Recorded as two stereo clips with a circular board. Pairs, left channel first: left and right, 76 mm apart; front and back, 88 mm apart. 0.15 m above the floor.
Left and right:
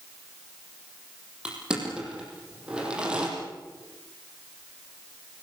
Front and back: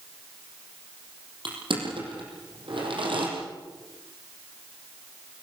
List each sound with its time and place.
1.4 s crushing: 170° right, 6.5 m